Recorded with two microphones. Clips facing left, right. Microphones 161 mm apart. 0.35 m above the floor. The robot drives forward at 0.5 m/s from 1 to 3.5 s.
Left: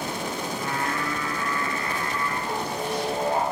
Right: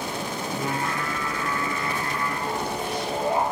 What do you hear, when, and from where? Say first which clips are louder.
0.5 s singing: right 1 dB; 30° right (ahead or behind), 5.5 m; by 3.4 s 25° right (ahead or behind), 7 m